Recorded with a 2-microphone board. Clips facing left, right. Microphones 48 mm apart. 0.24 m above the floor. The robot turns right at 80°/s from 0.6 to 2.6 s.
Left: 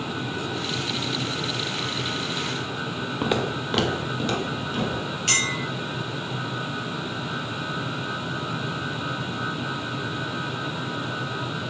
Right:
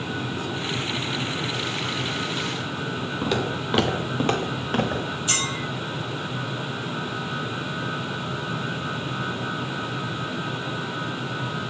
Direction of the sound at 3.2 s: 20° left (ahead or behind).